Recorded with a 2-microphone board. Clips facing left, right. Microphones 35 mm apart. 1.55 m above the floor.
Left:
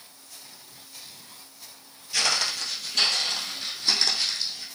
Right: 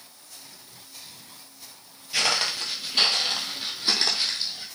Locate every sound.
2.1 s footsteps: 15° right (ahead or behind), 1.6 m; by 4.7 s 30° right (ahead or behind), 3 m